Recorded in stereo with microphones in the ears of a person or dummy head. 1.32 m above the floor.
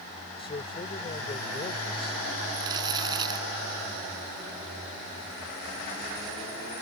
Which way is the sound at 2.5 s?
20° right (ahead or behind).